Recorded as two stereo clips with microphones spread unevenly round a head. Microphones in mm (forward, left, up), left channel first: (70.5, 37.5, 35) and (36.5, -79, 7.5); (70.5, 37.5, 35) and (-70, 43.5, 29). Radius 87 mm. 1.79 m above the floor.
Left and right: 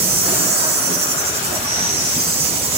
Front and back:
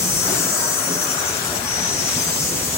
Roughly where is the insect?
Right.